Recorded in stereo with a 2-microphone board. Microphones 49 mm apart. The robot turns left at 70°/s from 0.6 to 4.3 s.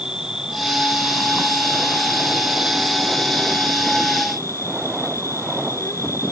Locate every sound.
0.0 s an insect: 10° right; by 6.3 s 90° left